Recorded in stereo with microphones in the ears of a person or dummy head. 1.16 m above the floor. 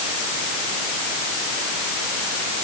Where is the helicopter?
I don't hear a helicopter.